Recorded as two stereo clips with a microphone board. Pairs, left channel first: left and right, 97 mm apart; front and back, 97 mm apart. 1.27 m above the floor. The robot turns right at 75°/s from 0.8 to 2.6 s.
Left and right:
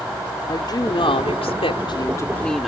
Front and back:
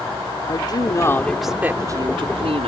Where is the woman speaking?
45° left; by 2.7 s straight behind.